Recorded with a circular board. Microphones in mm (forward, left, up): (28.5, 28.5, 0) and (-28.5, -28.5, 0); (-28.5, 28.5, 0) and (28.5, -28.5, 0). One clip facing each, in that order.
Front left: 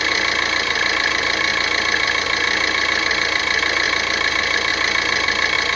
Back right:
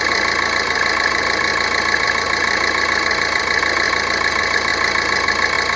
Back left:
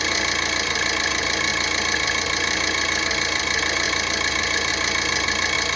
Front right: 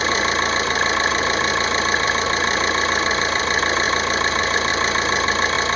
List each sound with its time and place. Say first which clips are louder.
0.0 s an engine running: back right 3 dB, front right 5 dB; 75° right, 0.8 m